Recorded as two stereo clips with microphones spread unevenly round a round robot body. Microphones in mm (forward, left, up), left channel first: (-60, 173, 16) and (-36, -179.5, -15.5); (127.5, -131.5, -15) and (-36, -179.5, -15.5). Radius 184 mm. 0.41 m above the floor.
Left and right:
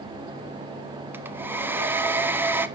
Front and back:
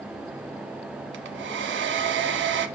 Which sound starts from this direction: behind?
A hair dryer, at 1.1 s.